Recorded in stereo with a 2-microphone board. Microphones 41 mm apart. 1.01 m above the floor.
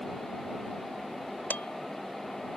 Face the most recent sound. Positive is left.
turn(degrees=50)  # may be behind; listen again after turning